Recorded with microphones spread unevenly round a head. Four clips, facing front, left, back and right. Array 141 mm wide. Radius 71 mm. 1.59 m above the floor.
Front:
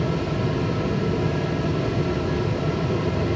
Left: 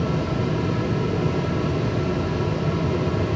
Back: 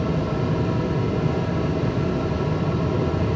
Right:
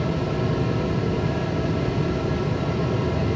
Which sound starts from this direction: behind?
A fan, at 0.0 s.